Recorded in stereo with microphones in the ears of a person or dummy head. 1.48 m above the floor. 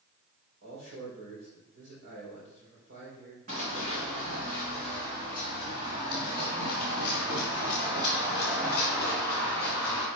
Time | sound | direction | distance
0.6 | a man speaking | 60° right (ahead or behind) | 5 m
3.5 | running footsteps | 45° right (ahead or behind) | 4.5 m